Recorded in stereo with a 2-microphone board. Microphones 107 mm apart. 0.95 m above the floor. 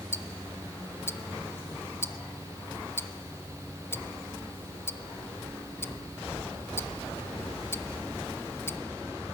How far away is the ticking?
About 0.5 m.